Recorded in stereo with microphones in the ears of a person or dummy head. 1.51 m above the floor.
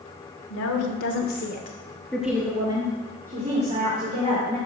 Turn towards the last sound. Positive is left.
turn(degrees=-40)  # may be behind; listen again after turning